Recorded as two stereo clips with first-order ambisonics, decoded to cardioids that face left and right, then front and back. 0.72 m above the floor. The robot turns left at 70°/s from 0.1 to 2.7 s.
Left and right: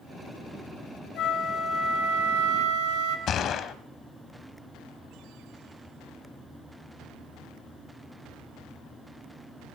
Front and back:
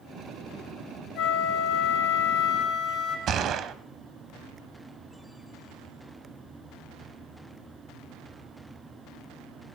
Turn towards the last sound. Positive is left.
turn(degrees=135)